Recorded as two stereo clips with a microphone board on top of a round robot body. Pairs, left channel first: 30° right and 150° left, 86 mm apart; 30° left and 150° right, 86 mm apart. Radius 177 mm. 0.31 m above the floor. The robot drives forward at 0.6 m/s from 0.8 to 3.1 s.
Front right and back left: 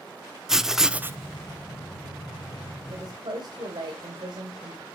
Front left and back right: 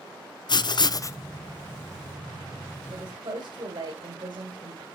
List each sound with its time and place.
0.5 s writing: 65° left, 0.5 m; by 1.2 s 90° left, 0.5 m
2.9 s a woman speaking: straight behind, 1.9 m